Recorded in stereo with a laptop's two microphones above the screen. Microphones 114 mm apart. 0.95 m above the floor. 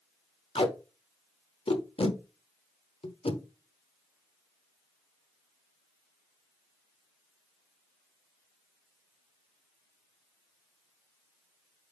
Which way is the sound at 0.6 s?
55° left (ahead or behind).